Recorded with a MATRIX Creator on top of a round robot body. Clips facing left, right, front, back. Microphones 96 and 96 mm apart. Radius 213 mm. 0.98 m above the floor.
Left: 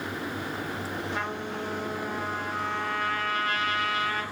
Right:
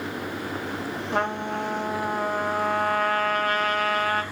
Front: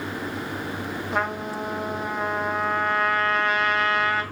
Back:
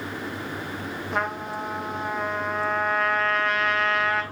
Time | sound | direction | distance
1.1 | a trumpet | 90° right | 0.6 m